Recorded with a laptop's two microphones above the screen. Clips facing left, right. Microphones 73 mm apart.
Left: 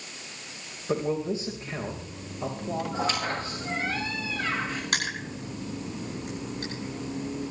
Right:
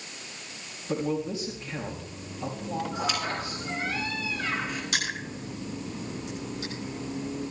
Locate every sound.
0.9 s a man speaking: 35° left (ahead or behind), 3.5 m
2.9 s a squeak: 35° left (ahead or behind), 8 m
4.9 s crushing: 55° left (ahead or behind), 9 m